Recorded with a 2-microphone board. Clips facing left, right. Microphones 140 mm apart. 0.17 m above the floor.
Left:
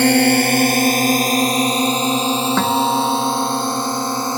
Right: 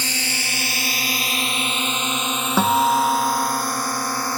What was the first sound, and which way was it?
A drone, 65° left (ahead or behind).